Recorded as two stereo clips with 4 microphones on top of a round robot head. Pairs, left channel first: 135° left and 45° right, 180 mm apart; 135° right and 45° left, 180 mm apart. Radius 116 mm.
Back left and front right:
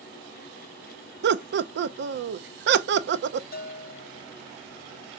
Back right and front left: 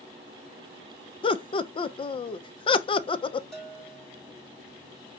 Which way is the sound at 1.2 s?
70° right.